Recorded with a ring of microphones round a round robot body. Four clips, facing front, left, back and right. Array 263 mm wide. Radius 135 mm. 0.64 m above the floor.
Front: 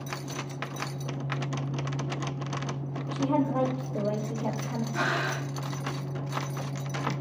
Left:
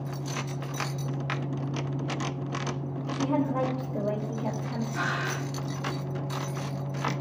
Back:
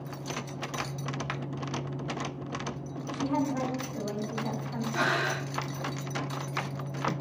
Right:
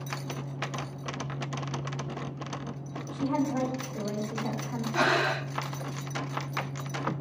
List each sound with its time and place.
3.1 s a woman speaking: 35° left, 3 m
4.9 s breathing: 95° right, 0.8 m